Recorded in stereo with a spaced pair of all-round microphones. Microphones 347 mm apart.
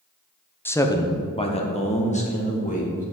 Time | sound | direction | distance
0.7 | a man speaking | 5° left (ahead or behind) | 0.7 m